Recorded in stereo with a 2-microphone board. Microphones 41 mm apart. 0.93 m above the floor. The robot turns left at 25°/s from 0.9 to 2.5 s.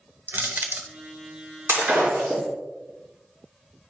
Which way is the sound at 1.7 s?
70° right (ahead or behind).